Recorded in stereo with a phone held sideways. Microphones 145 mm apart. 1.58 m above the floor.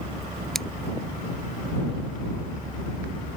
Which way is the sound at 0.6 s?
Centre (ahead or behind).